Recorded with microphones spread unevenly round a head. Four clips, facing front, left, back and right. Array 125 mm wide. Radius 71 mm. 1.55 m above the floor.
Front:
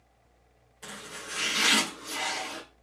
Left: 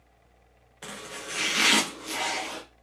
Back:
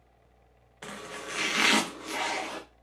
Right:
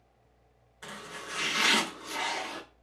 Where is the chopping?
155° left, 0.9 m.